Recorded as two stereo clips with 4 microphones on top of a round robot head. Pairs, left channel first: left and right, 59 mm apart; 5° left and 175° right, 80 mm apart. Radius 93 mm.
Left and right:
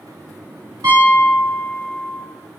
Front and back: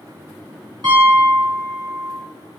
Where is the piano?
135° right, 1.3 m.